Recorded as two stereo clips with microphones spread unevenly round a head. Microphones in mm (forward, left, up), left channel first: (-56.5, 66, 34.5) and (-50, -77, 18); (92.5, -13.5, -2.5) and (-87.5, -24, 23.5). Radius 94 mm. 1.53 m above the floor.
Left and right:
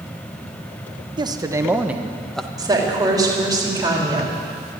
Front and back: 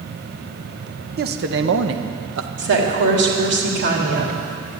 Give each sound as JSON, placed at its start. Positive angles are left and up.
{"t": 1.2, "sound": "a man speaking", "azimuth_deg": -150, "distance_m": 1.1}
{"t": 2.6, "sound": "a woman speaking", "azimuth_deg": -155, "distance_m": 3.5}